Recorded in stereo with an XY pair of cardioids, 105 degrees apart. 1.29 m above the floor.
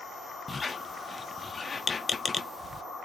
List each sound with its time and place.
0.5 s a squeak: 30° left, 0.5 m